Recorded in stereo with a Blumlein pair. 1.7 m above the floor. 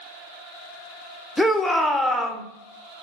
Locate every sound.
1.4 s a shout: 5° left, 0.7 m